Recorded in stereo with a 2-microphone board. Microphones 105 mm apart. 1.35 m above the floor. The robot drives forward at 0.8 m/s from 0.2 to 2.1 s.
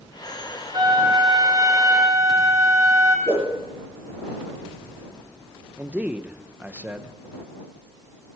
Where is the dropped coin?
I don't hear a dropped coin.